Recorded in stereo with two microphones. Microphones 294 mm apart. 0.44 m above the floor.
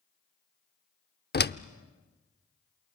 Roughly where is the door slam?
Left.